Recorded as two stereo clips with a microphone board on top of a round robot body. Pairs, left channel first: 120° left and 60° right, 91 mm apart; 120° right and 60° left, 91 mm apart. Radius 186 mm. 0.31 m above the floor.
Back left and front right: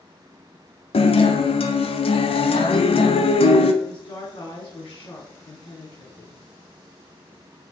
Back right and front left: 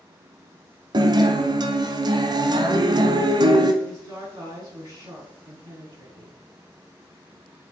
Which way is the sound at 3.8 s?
100° left.